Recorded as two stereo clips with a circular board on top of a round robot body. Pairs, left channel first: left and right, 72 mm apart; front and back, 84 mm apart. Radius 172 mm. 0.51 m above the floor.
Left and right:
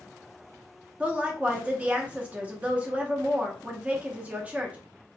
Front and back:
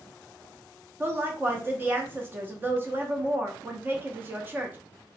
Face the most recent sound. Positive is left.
turn(degrees=-140)